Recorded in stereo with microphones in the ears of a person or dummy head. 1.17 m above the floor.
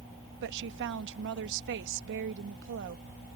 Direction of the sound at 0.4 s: 65° right (ahead or behind).